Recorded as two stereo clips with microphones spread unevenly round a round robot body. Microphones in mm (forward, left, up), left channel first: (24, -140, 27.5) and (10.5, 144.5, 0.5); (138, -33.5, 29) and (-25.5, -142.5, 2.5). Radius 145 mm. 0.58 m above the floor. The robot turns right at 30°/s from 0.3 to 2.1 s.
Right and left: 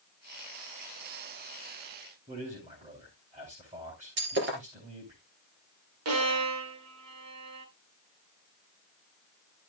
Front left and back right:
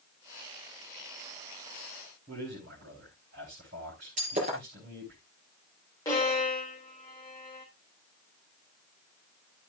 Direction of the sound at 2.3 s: 160° left.